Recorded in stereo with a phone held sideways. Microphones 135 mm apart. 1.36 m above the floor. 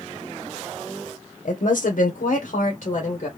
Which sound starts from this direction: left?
A woman speaking, at 1.4 s.